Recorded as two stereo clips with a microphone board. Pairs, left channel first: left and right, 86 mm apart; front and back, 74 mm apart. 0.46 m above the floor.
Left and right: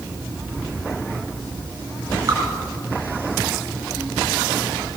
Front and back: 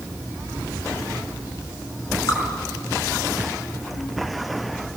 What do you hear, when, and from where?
2.3 s dripping: 40° right, 6.5 m